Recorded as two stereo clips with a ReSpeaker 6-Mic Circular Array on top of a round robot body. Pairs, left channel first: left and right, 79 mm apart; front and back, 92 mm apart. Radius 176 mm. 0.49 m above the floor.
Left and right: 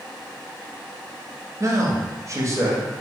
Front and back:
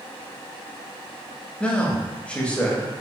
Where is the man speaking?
70° right, 1.0 m.